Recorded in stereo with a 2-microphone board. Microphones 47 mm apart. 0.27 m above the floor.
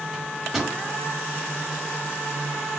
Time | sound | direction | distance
0.1 | a microwave | 5° right (ahead or behind) | 1.2 m